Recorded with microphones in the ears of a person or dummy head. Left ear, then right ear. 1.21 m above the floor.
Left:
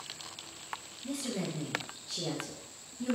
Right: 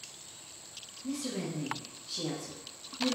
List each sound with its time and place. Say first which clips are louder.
1.0 s a woman speaking: even; centre (ahead or behind), 0.8 m